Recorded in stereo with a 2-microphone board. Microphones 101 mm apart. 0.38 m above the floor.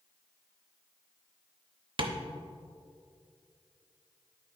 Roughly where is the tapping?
Right.